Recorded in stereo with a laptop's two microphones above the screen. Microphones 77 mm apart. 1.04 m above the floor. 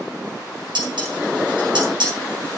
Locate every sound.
0.8 s dishes clattering: 90° right, 6.5 m